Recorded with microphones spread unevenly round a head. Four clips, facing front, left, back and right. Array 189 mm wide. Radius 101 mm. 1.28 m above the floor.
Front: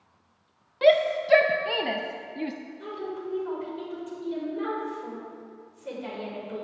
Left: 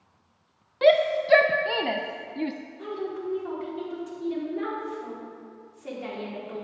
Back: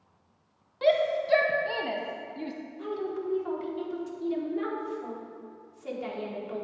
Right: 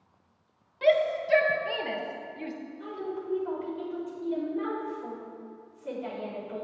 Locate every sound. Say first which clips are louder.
0.8 s a shout: left 4 dB, front 4 dB; 60° left, 0.6 m
2.8 s a woman speaking: left 4 dB, back 3 dB; 120° left, 4 m